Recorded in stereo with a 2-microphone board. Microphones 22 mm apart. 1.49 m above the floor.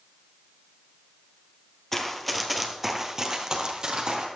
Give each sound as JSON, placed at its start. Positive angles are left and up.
{"t": 1.9, "sound": "running footsteps", "side_deg": 15, "distance_m": 1.6}